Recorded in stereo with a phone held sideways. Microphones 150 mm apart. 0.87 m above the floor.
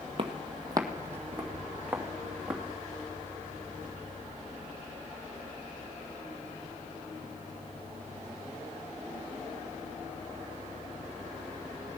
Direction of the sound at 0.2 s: 40° right (ahead or behind).